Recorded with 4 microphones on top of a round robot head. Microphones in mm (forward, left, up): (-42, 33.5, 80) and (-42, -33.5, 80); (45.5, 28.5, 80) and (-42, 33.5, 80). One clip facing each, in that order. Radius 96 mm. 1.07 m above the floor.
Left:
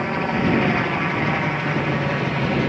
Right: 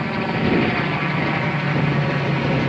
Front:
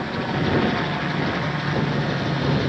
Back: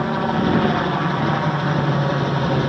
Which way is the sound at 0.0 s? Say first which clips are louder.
Even, back 5 dB; 165° left.